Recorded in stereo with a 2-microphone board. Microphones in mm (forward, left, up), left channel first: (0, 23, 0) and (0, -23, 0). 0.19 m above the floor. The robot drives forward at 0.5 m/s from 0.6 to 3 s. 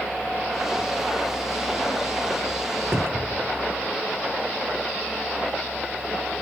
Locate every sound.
2.9 s a cupboard door: 50° right (ahead or behind), 2.5 m